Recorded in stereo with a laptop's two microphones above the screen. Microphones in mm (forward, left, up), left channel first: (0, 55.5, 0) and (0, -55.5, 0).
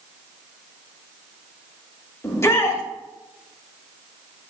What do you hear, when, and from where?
2.2 s a shout: 25° left (ahead or behind), 2 m